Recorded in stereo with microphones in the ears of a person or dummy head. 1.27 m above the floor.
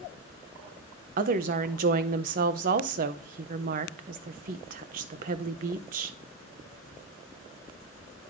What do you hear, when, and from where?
1.2 s a woman speaking: 45° right (ahead or behind), 0.5 m